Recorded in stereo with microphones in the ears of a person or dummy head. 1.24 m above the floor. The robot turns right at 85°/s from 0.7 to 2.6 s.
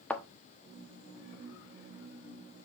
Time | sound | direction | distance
0.1 | a thud | 5° left (ahead or behind) | 1.0 m